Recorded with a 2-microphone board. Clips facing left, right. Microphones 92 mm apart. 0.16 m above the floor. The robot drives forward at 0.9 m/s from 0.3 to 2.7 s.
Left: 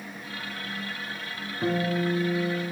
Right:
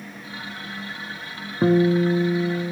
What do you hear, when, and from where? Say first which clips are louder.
1.6 s a guitar: right 9 dB; 50° right (ahead or behind), 0.8 m; by 2.7 s 30° right (ahead or behind), 1.2 m